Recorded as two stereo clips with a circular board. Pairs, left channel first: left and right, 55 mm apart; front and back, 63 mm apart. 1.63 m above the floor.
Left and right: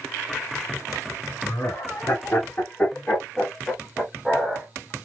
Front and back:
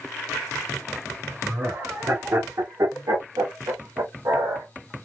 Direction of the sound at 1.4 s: 120° left.